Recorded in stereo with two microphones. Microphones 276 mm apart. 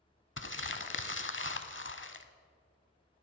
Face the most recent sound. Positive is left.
turn(degrees=45)  # may be behind; listen again after turning